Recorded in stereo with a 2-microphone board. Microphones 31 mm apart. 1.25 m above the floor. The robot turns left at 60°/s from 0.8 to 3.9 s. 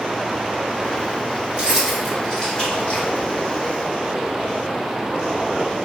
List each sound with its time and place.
1.5 s keys jangling: 30° right (ahead or behind), 1.4 m; by 3.1 s 60° left (ahead or behind), 1.4 m